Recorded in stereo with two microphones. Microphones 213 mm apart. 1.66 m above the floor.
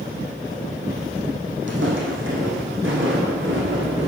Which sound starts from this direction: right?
Footsteps, at 1.7 s.